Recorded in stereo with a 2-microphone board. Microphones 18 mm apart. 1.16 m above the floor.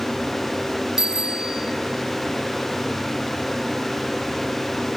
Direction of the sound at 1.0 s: 30° right (ahead or behind).